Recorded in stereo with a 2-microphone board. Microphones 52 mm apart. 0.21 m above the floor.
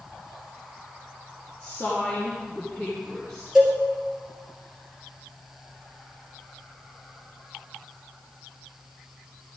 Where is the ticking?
I don't hear ticking.